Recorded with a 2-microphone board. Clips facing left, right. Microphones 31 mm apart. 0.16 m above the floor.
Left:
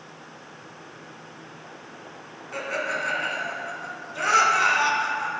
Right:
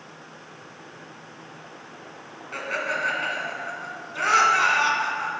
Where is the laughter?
15° right (ahead or behind), 1.4 m.